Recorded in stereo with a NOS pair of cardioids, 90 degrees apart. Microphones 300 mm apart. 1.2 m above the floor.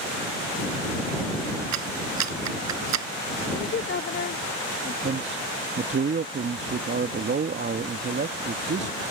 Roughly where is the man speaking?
Ahead right.